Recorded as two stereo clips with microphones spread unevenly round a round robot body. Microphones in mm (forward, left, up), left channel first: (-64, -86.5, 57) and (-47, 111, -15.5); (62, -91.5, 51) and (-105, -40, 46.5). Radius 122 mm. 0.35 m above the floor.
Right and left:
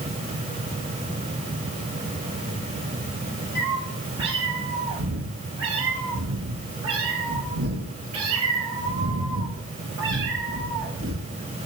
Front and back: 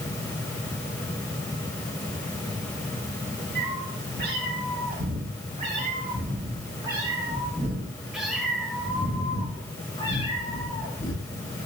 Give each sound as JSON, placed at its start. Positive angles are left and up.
{"t": 3.5, "sound": "a cat meowing", "azimuth_deg": 120, "distance_m": 5.5}